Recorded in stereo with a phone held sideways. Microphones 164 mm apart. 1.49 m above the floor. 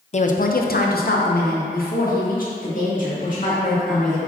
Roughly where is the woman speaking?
Left.